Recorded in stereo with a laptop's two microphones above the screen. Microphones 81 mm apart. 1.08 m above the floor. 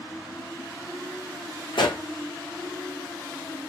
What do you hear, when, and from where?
1.7 s a pop: 70° left (ahead or behind), 1.5 m